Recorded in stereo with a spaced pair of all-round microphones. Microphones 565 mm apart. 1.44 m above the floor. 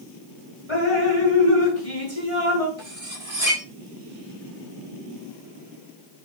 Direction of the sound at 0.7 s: 75° left (ahead or behind).